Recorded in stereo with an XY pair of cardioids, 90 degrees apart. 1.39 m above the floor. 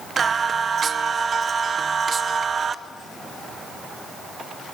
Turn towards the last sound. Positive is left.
turn(degrees=-45)